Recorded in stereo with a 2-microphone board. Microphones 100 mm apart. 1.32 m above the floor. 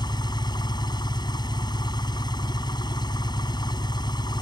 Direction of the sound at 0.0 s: 45° left (ahead or behind).